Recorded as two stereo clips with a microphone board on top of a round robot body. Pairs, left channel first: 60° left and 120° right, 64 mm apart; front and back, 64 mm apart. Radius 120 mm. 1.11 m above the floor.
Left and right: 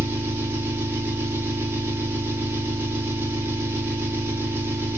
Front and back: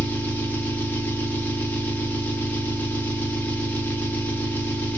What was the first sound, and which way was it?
An engine running, 60° right.